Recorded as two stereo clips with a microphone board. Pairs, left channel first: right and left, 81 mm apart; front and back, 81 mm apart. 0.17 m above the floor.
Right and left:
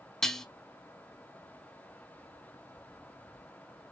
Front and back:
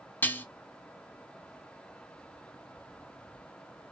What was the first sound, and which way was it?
Dishes clattering, 15° right.